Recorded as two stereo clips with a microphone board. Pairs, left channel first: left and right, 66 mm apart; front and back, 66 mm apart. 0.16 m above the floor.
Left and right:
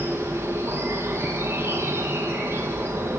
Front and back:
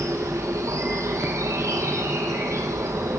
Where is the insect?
140° right, 4.5 m.